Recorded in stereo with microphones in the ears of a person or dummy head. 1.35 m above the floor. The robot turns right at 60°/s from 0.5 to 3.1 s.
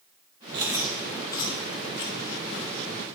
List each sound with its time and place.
0.5 s chewing: 25° right (ahead or behind), 1.2 m; by 2.7 s 65° left (ahead or behind), 1.2 m